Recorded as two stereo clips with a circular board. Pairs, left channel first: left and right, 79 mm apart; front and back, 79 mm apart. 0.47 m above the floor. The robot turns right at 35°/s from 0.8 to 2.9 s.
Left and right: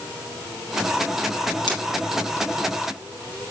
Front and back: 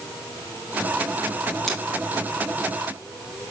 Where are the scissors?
85° left, 2.5 m; by 1.8 s 90° left, 2.5 m.